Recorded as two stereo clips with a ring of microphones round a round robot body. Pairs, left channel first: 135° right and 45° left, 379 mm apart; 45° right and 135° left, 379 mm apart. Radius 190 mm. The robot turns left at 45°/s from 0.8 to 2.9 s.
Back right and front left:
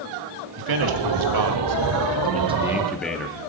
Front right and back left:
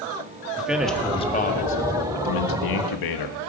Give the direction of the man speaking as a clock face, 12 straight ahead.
10 o'clock.